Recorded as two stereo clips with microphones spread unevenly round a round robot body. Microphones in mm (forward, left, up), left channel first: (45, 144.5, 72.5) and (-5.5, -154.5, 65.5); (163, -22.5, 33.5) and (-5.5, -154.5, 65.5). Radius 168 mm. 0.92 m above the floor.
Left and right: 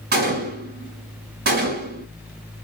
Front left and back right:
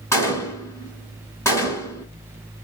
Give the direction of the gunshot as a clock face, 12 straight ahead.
1 o'clock.